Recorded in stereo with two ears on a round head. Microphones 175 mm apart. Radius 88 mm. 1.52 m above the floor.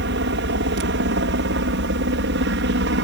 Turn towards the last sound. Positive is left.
turn(degrees=-60)  # may be behind; listen again after turning